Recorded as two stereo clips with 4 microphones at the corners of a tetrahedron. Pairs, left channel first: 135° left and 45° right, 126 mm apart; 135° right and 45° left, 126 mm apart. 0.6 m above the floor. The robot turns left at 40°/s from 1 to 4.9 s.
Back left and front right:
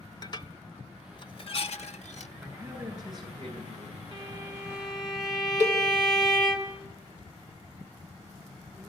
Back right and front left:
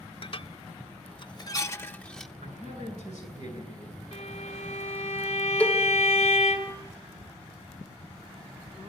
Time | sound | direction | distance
0.2 | dishes clattering | 175° right | 0.8 m
2.4 | a man speaking | 40° left | 9 m
4.1 | a violin | 100° right | 2 m
5.6 | a cowbell | 60° right | 1.8 m